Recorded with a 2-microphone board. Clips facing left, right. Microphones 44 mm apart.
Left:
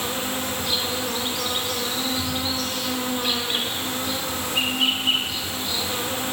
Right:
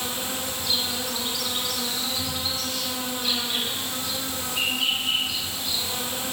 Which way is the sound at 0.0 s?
40° left (ahead or behind).